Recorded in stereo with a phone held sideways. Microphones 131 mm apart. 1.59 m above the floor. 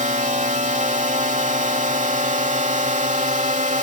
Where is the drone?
70° right (ahead or behind).